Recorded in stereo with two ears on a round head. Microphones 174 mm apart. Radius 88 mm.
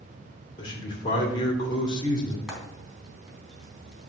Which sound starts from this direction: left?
A man speaking, at 0.6 s.